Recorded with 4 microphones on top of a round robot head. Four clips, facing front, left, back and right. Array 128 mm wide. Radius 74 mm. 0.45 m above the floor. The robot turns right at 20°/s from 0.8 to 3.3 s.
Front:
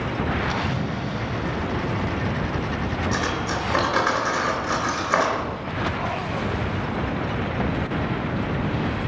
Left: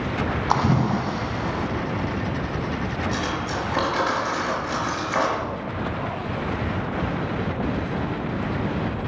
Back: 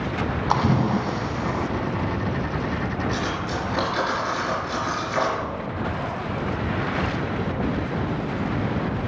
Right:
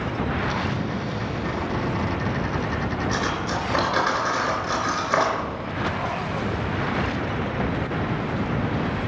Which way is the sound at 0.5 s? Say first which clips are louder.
Left 6 dB, back 6 dB; 130° left.